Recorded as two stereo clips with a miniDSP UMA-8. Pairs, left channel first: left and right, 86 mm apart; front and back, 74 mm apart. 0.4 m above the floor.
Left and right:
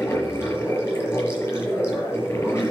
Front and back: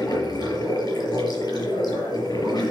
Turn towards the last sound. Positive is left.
turn(degrees=30)